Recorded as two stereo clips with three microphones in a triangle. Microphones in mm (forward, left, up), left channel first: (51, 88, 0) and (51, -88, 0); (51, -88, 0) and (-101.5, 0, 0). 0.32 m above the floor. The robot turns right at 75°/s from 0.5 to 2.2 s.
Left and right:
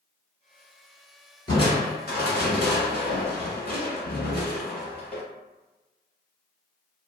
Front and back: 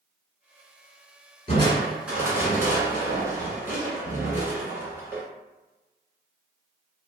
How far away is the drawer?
I don't hear a drawer.